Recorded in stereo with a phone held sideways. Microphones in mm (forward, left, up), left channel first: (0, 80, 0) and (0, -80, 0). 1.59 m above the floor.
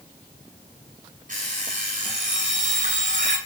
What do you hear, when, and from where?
1.3 s an alarm clock: 55° right (ahead or behind), 5.5 m